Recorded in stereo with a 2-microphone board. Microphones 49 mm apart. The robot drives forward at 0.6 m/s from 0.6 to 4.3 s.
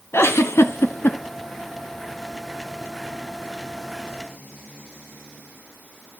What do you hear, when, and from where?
0.1 s a giggle: 70° left (ahead or behind), 0.8 m; by 1.2 s 65° left (ahead or behind), 0.9 m